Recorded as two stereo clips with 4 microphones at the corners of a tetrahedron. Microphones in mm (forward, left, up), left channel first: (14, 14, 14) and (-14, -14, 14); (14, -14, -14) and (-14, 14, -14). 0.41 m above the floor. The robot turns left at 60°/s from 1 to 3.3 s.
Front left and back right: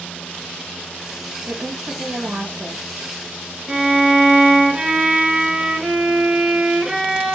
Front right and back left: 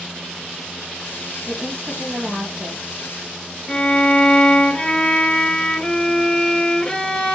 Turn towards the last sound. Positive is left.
turn(degrees=-65)